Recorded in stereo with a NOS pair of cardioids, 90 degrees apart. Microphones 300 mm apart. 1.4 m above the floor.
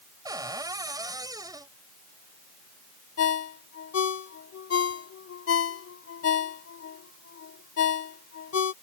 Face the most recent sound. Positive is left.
turn(degrees=50)